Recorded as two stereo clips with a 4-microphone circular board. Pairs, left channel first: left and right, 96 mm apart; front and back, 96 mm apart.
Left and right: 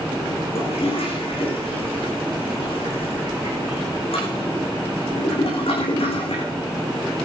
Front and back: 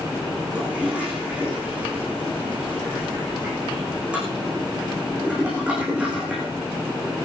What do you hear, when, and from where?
0.6 s a toilet flushing: 100° left, 10 m